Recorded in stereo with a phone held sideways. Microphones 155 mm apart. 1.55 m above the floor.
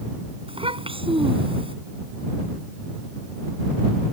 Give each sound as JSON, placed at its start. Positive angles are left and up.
{"t": 0.5, "sound": "a child speaking", "side_deg": -35}